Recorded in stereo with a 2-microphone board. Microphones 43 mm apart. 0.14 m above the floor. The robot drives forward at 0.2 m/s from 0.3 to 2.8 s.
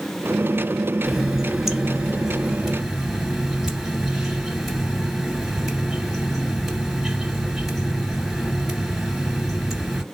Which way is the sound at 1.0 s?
5° right (ahead or behind).